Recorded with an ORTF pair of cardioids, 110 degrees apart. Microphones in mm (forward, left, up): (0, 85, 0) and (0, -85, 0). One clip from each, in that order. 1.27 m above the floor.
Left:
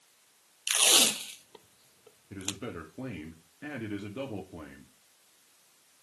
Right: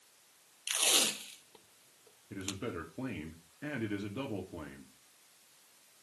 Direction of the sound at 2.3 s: 5° left.